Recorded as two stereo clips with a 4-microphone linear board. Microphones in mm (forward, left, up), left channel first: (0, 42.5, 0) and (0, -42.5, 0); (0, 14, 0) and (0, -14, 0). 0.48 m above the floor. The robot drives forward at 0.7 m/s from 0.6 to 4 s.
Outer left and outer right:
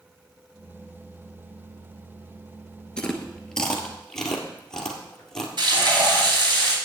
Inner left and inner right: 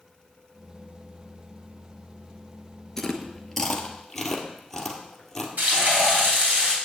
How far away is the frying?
About 3 m.